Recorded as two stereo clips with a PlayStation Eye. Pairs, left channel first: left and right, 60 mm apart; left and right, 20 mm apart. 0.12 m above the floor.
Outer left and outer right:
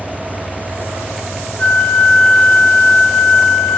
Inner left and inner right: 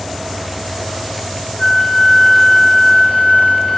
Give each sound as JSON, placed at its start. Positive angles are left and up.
{"t": 1.6, "sound": "a flute", "side_deg": 20, "distance_m": 3.0}